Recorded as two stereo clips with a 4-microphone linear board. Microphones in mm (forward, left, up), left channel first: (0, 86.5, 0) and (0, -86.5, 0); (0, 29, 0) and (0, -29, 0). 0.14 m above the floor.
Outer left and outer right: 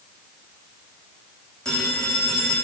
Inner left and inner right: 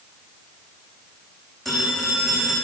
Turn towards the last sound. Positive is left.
turn(degrees=5)  # may be behind; listen again after turning